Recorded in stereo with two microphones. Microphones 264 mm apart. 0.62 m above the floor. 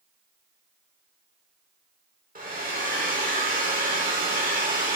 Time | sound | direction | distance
2.4 | a hair dryer | 30° right (ahead or behind) | 1.6 m